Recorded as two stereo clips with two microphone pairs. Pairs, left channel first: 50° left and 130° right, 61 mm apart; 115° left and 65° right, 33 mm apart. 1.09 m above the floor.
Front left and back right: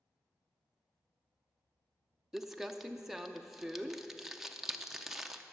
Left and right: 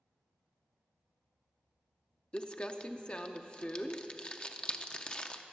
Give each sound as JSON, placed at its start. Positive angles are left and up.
{"t": 2.3, "sound": "crumpling", "azimuth_deg": 150, "distance_m": 0.6}